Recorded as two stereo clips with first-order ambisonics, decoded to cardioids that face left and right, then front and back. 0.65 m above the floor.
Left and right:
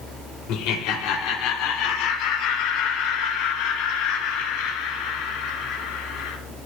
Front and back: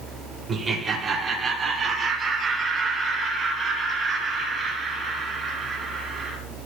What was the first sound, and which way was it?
Laughter, 105° left.